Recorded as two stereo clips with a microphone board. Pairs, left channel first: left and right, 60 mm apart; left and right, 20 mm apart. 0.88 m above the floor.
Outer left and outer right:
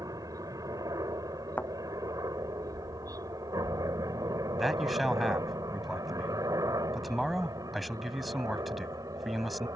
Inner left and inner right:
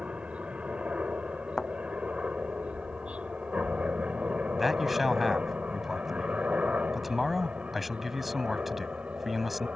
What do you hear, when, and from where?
0.0 s a helicopter: 65° right (ahead or behind); by 9.8 s 70° right (ahead or behind)
1.6 s a thud: 25° left (ahead or behind)
4.6 s a man speaking: centre (ahead or behind)